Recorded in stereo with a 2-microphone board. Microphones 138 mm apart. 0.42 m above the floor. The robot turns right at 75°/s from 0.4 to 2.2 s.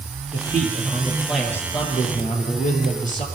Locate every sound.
0.3 s a man speaking: 70° right, 9 m; by 3.2 s 65° left, 9 m